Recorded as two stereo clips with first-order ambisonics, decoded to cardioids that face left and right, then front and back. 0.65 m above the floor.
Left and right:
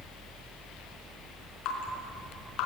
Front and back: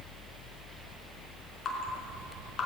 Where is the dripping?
60° left, 4 m.